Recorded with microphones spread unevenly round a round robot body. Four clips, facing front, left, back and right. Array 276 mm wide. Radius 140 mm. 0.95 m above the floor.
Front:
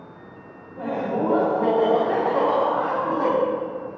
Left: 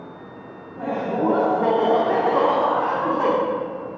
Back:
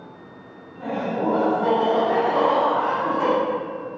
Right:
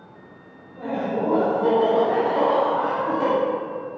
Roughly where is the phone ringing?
No phone ringing in this recording.